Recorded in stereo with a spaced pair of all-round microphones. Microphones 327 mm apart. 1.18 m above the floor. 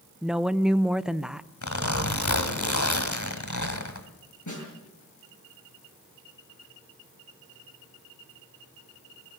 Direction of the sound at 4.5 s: 60° left (ahead or behind).